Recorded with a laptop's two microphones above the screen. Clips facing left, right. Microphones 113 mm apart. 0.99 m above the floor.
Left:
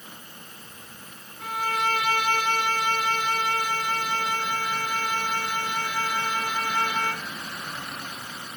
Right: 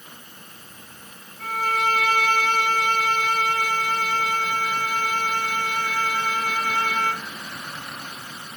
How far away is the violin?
About 6.5 m.